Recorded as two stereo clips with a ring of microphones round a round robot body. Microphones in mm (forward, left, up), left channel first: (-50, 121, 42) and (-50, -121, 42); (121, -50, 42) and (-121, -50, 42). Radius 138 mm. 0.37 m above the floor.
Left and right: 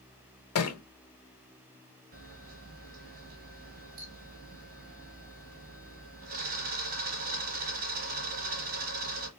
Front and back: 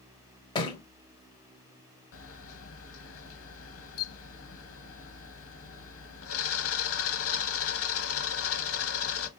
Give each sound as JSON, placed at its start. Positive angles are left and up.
{"t": 0.6, "sound": "a thud", "azimuth_deg": 70, "distance_m": 0.8}
{"t": 2.1, "sound": "a camera shutter", "azimuth_deg": -30, "distance_m": 0.9}